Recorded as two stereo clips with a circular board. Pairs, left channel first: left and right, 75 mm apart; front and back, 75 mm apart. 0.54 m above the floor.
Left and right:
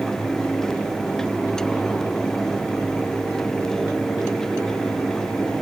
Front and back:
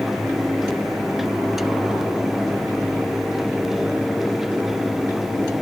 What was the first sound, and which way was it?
Only background noise.